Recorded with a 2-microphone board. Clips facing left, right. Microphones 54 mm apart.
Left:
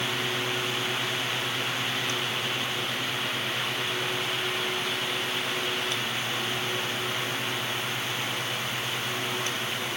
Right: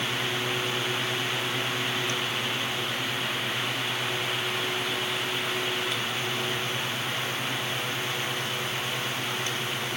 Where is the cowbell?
I don't hear a cowbell.